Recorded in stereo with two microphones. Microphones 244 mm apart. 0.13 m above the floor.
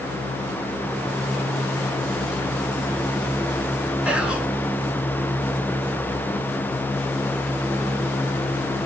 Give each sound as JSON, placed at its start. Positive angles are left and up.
{"t": 4.0, "sound": "whispering", "side_deg": -5, "distance_m": 1.1}